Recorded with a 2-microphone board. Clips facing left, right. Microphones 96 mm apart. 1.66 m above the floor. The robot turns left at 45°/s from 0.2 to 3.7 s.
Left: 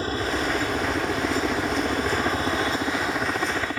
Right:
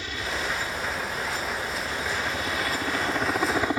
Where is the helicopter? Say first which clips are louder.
Left 6 dB; 140° left; by 3.8 s 20° right.